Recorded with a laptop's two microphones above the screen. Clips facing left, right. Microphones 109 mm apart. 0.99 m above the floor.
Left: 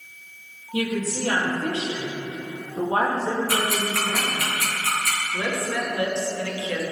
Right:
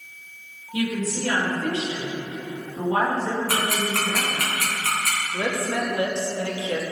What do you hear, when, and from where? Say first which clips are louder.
0.7 s a woman speaking: even; 30° left (ahead or behind), 1.2 m
3.5 s ticking: even; 60° right (ahead or behind), 1.4 m
5.3 s a woman speaking: right 2 dB; 25° right (ahead or behind), 1.2 m